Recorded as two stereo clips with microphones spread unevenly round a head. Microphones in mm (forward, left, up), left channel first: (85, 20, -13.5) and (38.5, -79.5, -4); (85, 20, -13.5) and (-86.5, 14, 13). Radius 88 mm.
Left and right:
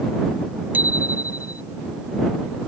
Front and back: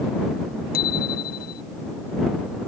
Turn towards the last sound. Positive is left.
turn(degrees=-40)